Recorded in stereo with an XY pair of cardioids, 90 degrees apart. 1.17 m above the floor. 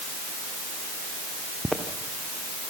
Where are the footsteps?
Straight ahead, 4 m.